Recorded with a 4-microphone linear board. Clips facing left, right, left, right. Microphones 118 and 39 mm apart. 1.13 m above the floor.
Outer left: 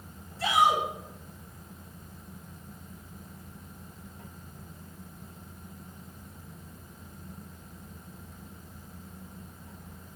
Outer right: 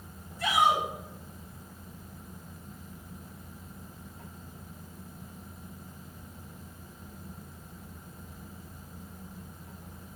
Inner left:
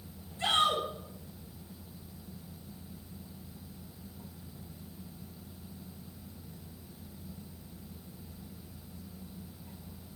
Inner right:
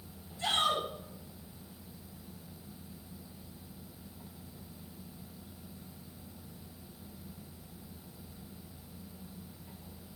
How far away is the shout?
About 4 m.